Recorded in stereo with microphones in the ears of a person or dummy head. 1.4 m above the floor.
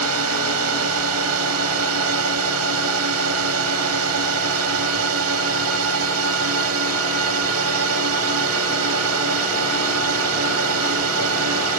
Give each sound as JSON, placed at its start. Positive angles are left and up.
{"t": 0.0, "sound": "a drone", "side_deg": -80}